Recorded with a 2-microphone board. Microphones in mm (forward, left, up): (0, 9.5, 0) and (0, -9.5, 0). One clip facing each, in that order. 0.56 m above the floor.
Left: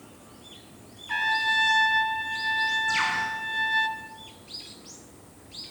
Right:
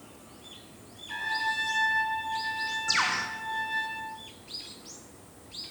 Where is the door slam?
No door slam in this recording.